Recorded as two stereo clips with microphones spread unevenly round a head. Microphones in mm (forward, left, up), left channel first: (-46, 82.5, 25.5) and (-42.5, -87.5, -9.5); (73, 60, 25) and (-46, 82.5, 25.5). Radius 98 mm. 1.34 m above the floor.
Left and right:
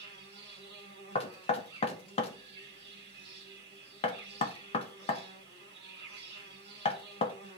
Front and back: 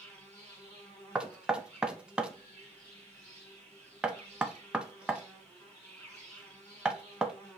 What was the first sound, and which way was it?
An insect, 85° right.